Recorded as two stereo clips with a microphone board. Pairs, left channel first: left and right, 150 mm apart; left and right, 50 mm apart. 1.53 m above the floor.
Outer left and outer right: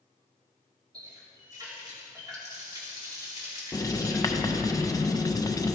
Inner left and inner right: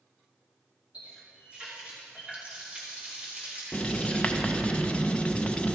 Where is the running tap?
25° right (ahead or behind), 2.5 m.